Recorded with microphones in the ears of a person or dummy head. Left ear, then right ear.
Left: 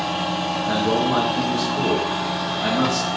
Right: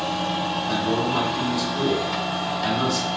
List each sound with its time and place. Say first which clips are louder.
0.7 s a man speaking: left 5 dB; 45° left (ahead or behind), 0.8 m